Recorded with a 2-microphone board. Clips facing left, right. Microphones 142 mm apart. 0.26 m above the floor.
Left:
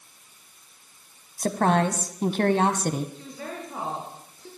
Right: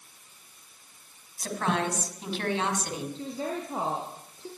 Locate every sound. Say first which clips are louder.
1.4 s a woman speaking: left 7 dB; 50° left (ahead or behind), 1.6 m
3.1 s a woman speaking: right 4 dB; 30° right (ahead or behind), 3.5 m